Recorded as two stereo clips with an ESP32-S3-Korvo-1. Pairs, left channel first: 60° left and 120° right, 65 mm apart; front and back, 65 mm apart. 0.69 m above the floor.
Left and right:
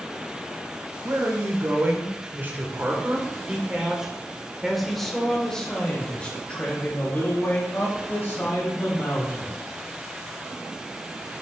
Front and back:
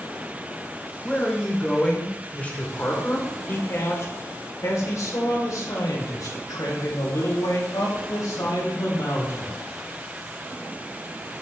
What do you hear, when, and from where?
1.0 s a man speaking: 80° right, 2.5 m; by 9.6 s 10° left, 3.5 m